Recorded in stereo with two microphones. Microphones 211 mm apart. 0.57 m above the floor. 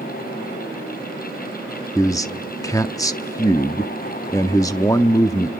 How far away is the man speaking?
About 0.7 m.